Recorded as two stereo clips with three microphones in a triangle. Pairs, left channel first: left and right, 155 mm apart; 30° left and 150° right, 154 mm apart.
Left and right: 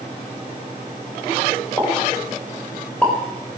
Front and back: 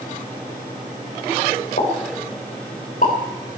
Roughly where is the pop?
Ahead.